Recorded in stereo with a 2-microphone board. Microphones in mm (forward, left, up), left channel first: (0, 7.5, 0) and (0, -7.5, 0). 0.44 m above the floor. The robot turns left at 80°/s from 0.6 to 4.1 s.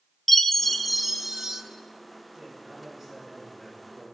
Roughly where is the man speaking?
Right.